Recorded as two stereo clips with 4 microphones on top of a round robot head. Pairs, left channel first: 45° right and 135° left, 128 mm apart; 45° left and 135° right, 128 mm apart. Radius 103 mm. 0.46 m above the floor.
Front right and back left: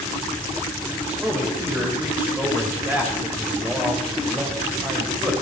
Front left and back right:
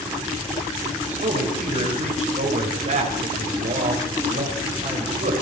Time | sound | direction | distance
1.1 | a man speaking | 150° right | 3.5 m